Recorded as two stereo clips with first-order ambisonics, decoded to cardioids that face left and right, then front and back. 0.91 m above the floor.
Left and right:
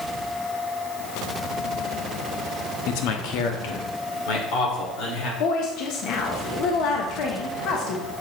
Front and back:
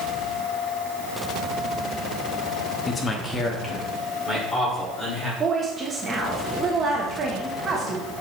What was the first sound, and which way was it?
A man speaking, 70° left.